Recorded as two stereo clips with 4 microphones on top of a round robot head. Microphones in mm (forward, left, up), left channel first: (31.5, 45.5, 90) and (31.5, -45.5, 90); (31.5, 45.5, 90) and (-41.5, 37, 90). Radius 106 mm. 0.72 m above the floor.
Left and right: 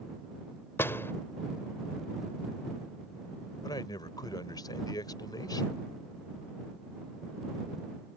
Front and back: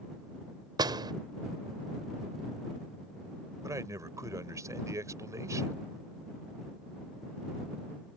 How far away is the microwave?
No microwave in this recording.